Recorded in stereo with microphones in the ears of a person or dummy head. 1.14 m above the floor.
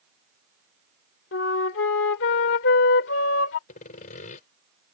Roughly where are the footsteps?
I don't hear footsteps.